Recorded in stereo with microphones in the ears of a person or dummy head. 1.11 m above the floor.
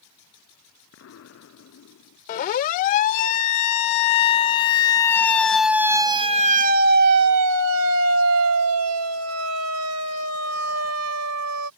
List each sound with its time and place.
0.9 s an explosion: 70° left (ahead or behind)
2.3 s a siren: 50° left (ahead or behind); by 11.7 s 80° right